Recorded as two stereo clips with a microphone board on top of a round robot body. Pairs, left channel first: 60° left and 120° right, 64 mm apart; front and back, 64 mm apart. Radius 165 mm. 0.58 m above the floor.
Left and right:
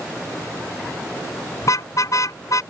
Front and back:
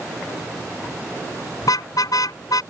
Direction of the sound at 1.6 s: 20° left.